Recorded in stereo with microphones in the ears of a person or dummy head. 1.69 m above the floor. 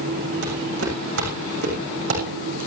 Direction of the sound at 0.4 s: 75° right (ahead or behind).